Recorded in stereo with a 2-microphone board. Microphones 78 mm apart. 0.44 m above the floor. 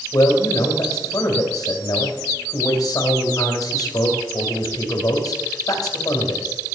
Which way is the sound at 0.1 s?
50° left (ahead or behind).